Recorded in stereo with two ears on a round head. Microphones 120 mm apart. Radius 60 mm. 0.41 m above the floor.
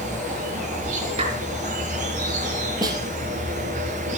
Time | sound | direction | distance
0.0 | an insect | 60° right (ahead or behind) | 6 m
1.2 | a clap | 40° right (ahead or behind) | 6 m
2.8 | a snare drum | 30° right (ahead or behind) | 2.5 m